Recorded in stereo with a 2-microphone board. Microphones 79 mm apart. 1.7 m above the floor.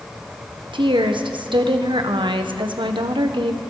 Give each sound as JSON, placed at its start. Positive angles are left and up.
{"t": 0.7, "sound": "a woman speaking", "side_deg": -85, "distance_m": 1.5}